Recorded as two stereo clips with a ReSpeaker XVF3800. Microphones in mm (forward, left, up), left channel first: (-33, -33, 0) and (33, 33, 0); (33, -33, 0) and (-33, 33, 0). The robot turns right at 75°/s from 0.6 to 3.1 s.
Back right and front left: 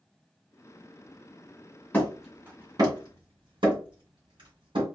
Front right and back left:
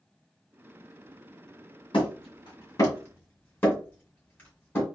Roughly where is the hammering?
Ahead right.